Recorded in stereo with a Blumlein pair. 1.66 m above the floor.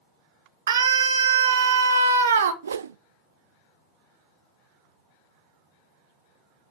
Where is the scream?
65° right, 1.9 m.